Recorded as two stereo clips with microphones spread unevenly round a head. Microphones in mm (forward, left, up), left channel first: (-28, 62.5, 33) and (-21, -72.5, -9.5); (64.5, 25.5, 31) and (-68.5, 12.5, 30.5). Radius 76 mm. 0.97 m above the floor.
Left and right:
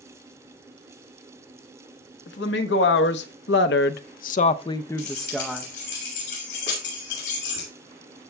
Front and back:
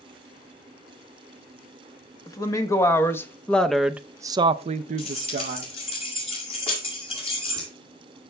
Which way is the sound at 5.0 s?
50° left.